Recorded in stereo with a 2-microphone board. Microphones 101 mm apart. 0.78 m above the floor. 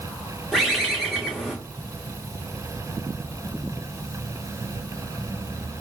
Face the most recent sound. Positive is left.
turn(degrees=0)  # may be behind; listen again after turning